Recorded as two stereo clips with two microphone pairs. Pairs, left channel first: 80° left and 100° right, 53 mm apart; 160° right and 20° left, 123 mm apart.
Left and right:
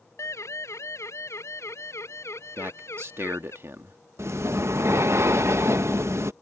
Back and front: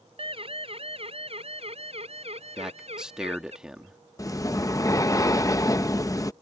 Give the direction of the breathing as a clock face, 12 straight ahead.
3 o'clock.